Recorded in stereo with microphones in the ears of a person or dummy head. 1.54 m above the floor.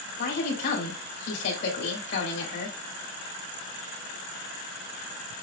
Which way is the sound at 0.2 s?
60° left (ahead or behind).